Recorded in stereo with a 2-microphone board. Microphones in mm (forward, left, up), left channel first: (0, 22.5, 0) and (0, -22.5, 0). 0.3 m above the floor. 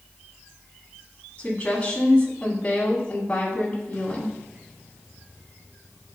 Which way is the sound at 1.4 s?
20° left (ahead or behind).